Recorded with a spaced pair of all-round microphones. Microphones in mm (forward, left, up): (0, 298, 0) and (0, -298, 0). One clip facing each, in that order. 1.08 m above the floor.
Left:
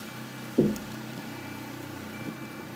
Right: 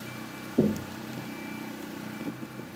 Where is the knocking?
10° right (ahead or behind), 0.8 m.